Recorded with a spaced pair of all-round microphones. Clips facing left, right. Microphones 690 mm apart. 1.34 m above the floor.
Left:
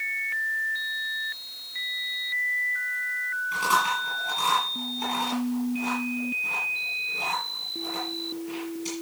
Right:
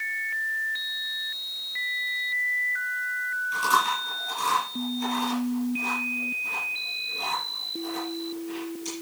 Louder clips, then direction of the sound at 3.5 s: Even; 80° left.